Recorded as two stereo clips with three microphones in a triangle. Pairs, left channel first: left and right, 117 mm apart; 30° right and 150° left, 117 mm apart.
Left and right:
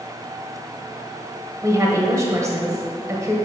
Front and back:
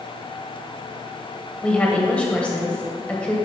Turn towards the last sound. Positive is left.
turn(degrees=-100)